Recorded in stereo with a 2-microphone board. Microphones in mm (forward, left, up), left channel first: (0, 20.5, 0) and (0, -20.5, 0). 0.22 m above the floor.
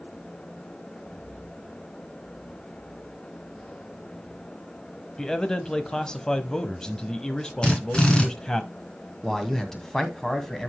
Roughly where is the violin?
I don't hear a violin.